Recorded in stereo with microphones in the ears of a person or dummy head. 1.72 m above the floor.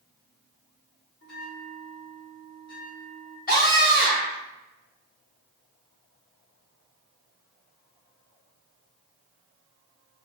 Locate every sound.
1.2 s a bell: 55° left (ahead or behind), 1.5 m
3.5 s a scream: 45° left (ahead or behind), 1.9 m